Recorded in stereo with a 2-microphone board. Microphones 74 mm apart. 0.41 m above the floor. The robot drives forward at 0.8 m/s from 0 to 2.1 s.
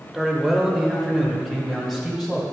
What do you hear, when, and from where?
0.1 s a man speaking: 5° right (ahead or behind), 1.1 m